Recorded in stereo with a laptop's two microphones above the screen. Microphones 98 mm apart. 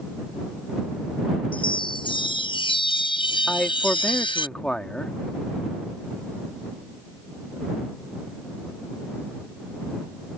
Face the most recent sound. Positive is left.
turn(degrees=10)  # may be behind; listen again after turning